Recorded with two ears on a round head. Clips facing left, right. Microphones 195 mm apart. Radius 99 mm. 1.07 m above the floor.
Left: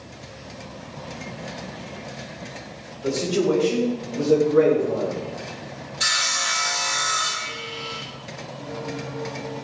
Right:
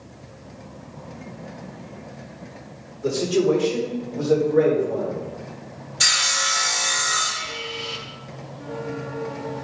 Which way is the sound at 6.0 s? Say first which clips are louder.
Right 1 dB; 65° right (ahead or behind).